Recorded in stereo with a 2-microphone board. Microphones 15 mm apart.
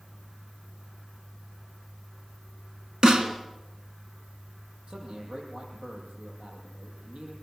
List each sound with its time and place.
3.0 s a snare drum: 50° right (ahead or behind), 2.5 m
4.9 s a man speaking: 70° right (ahead or behind), 9.5 m